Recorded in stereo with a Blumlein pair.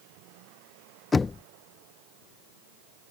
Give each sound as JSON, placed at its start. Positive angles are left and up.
{"t": 1.1, "sound": "knocking", "azimuth_deg": 15}